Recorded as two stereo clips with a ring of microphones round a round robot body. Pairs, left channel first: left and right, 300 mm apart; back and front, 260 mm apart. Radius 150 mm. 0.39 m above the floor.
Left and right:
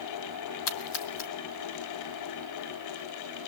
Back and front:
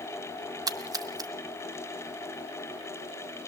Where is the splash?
75° left, 1.6 m.